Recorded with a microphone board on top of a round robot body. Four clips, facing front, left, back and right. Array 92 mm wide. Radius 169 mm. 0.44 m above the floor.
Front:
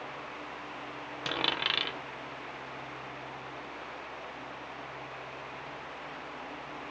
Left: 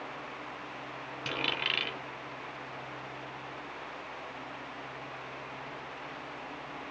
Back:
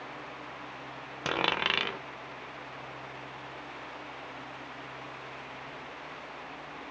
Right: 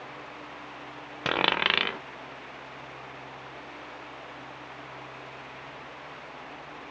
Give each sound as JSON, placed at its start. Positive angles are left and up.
{"t": 1.2, "sound": "a dropped coin", "azimuth_deg": -110, "distance_m": 0.6}